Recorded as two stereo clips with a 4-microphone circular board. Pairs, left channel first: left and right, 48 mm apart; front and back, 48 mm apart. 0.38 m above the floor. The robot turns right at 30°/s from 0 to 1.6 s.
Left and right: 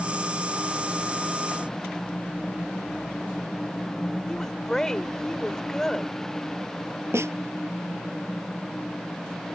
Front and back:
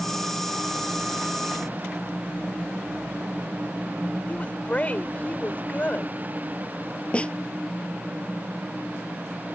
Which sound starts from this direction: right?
A snare drum, at 7.1 s.